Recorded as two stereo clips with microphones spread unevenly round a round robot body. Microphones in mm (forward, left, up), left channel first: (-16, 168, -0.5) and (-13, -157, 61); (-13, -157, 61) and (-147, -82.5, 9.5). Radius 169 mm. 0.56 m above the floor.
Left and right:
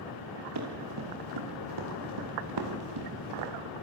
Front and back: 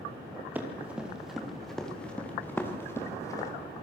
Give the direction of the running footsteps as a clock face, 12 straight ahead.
4 o'clock.